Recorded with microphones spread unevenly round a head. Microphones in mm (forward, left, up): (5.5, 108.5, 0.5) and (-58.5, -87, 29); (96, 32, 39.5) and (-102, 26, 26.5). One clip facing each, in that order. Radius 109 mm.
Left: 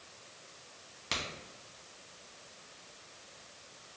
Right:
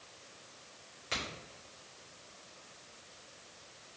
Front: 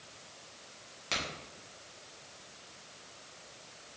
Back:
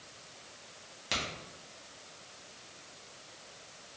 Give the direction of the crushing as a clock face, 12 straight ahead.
I don't hear crushing.